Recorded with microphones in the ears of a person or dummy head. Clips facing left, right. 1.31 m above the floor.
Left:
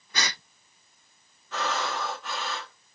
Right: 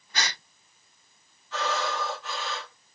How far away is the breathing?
About 3 m.